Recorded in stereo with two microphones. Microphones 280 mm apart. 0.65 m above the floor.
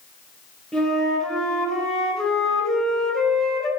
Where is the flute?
Centre (ahead or behind), 1.7 m.